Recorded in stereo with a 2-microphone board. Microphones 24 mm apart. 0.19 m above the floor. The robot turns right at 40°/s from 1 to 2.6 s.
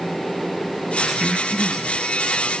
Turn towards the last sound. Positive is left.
turn(degrees=25)  # may be behind; listen again after turning